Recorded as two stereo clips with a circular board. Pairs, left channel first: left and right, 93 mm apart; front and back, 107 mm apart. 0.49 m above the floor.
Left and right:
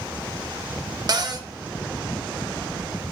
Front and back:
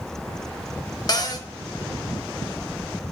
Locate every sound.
1.1 s a cupboard door: 50° right, 0.5 m